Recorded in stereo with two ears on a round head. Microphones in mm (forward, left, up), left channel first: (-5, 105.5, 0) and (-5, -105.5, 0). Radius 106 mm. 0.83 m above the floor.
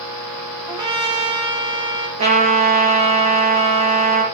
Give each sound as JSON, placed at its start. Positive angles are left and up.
{"t": 0.7, "sound": "a trumpet", "side_deg": -20, "distance_m": 2.5}
{"t": 2.2, "sound": "a trumpet", "side_deg": -25, "distance_m": 3.0}